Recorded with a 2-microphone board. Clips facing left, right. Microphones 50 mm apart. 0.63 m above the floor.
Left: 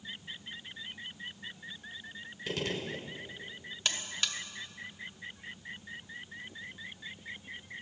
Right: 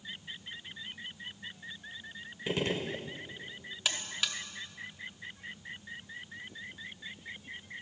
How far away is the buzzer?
About 0.7 m.